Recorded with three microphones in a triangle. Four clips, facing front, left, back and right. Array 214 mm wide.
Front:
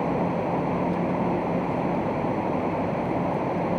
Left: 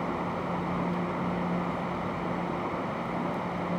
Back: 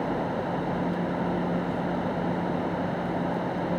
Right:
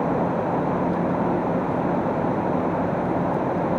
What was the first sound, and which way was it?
Only background noise.